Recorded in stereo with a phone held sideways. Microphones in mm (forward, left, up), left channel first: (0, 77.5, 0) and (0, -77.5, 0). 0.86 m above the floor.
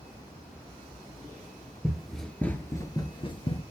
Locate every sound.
1.8 s running footsteps: 5° right (ahead or behind), 1.1 m; by 3.6 s 40° left (ahead or behind), 1.0 m